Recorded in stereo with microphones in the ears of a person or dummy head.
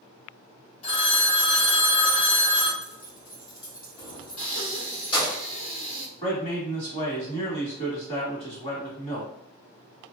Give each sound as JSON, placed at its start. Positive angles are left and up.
{"t": 0.8, "sound": "a phone ringing", "side_deg": 40, "distance_m": 1.3}
{"t": 2.8, "sound": "keys jangling", "side_deg": 30, "distance_m": 1.6}
{"t": 4.4, "sound": "breathing", "side_deg": 65, "distance_m": 1.8}
{"t": 6.2, "sound": "a man speaking", "side_deg": 30, "distance_m": 1.5}